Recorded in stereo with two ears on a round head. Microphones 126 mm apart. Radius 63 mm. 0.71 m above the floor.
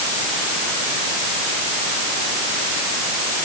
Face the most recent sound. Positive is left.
No sound to turn to.